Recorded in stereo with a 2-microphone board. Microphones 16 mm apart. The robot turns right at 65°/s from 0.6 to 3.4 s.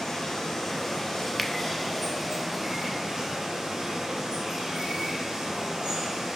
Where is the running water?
85° left, 3.5 m; by 6.4 s 95° right, 3.5 m.